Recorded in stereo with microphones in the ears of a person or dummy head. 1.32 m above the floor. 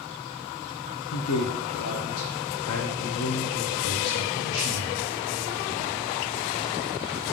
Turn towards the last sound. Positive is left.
turn(degrees=75)  # may be behind; listen again after turning